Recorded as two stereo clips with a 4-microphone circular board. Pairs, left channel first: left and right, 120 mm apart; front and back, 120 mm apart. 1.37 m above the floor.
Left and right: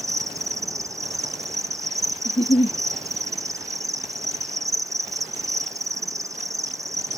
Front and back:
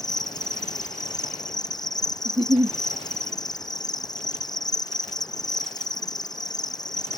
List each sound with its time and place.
0.0 s an insect: 40° right
2.2 s a giggle: 130° left